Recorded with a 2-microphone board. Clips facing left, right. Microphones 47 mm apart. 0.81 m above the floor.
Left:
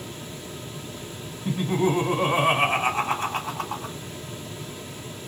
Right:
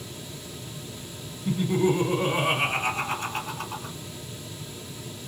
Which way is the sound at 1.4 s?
60° left (ahead or behind).